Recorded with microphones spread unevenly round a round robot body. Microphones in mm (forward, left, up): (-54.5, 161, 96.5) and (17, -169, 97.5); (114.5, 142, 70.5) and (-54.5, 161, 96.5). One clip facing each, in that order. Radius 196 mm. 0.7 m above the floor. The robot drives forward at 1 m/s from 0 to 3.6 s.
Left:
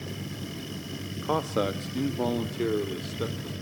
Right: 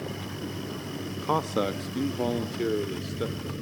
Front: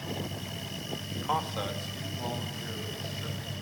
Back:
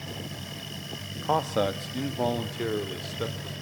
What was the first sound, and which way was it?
A man speaking, 155° right.